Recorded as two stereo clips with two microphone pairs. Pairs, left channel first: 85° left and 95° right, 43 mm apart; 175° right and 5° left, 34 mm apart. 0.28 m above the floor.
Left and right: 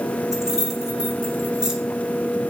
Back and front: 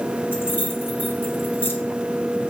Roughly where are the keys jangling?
Behind.